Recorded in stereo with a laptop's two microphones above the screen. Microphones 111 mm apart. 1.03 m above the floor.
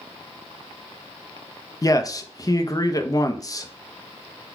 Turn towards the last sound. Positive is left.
turn(degrees=30)  # may be behind; listen again after turning